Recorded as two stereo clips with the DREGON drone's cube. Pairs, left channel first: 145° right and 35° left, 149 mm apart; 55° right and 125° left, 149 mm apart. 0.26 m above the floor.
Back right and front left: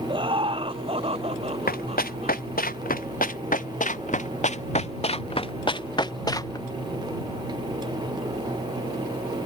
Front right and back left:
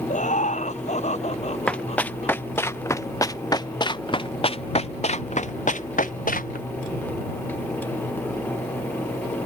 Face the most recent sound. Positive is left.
turn(degrees=-75)